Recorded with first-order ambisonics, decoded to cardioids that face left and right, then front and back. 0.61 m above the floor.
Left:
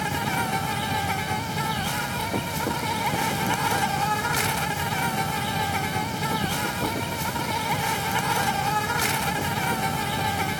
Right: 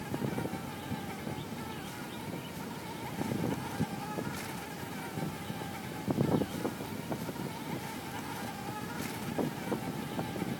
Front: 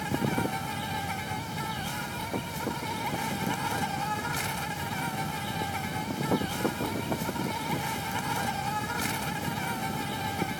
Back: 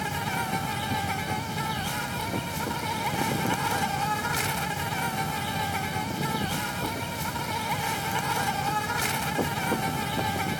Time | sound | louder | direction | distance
0.0 | an insect | left 12 dB, back 1 dB | 110° left | ?